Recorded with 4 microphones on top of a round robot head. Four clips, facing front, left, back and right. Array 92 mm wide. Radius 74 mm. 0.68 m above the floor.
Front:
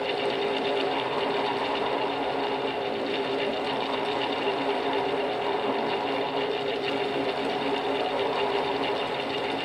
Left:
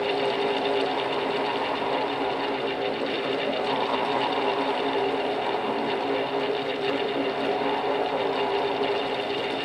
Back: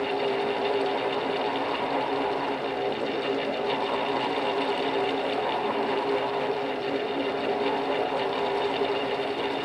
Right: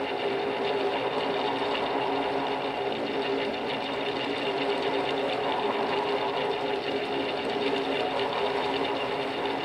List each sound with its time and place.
Only background noise.